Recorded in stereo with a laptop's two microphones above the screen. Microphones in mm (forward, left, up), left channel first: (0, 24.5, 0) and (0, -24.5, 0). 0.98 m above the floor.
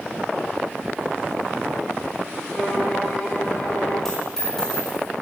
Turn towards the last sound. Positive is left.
turn(degrees=10)  # may be behind; listen again after turning